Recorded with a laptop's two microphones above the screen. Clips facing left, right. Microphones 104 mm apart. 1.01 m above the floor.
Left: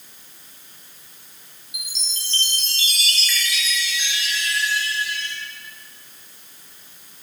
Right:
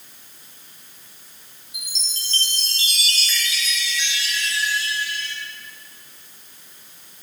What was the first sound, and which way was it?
A chime, 35° right (ahead or behind).